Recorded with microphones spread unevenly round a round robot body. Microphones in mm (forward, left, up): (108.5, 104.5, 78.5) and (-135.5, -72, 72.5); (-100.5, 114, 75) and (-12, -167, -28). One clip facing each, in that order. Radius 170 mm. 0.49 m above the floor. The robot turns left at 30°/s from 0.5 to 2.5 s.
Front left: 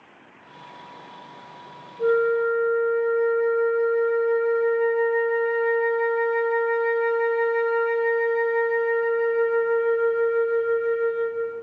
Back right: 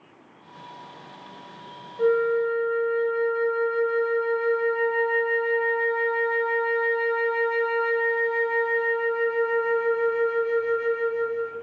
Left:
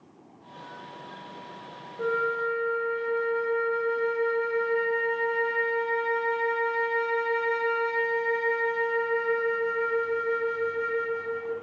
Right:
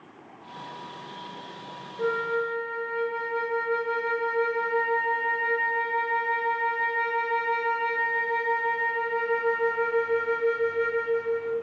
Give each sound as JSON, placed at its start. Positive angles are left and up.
{"t": 2.0, "sound": "a flute", "azimuth_deg": -160, "distance_m": 0.5}